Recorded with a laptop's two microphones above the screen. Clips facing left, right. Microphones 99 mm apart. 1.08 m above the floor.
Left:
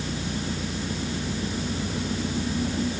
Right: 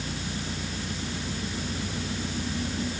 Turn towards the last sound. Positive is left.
turn(degrees=20)  # may be behind; listen again after turning